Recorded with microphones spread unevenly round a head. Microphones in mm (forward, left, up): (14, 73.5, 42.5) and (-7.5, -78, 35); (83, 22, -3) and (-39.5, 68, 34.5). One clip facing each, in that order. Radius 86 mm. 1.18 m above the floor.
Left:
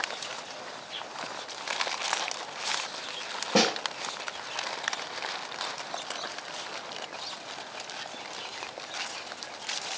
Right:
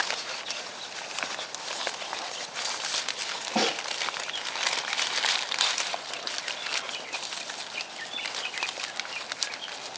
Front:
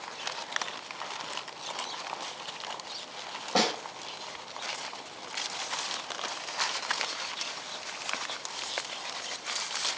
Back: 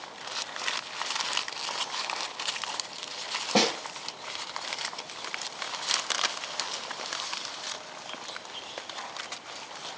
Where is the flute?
No flute in this recording.